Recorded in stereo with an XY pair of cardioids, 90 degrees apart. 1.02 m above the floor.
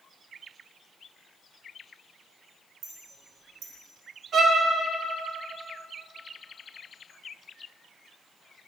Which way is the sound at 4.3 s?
65° right.